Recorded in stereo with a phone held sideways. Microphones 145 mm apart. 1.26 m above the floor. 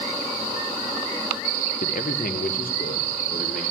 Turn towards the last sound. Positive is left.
turn(degrees=80)